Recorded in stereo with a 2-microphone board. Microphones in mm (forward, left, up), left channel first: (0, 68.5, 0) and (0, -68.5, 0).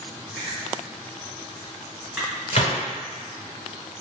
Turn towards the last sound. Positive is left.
turn(degrees=50)  # may be behind; listen again after turning